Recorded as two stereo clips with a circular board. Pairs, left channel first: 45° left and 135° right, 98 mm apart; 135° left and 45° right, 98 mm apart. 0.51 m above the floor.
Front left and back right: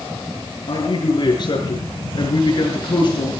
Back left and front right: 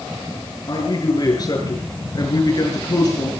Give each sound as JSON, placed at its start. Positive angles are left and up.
{"t": 0.7, "sound": "a man speaking", "azimuth_deg": 85, "distance_m": 8.0}